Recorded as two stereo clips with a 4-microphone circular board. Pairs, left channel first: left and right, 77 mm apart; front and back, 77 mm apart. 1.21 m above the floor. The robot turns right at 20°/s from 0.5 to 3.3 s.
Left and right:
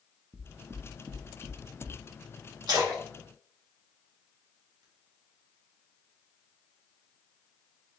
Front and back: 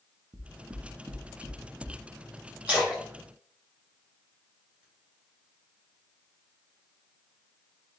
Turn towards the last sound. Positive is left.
turn(degrees=-95)